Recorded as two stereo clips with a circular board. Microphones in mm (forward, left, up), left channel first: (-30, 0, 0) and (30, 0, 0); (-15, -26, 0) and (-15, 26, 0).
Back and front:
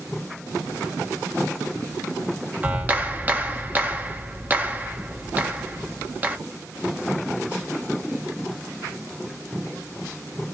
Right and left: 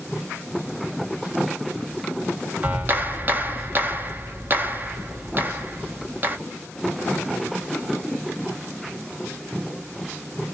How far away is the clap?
About 1.1 m.